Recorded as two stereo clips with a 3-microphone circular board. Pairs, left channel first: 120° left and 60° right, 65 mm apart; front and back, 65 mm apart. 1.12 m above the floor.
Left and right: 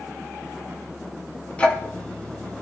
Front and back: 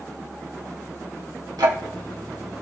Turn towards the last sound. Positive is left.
turn(degrees=-170)